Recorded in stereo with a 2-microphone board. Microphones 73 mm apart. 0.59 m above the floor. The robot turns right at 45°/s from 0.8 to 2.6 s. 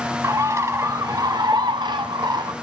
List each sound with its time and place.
0.2 s a bird: 140° right, 1.1 m; by 2.5 s 60° right, 1.1 m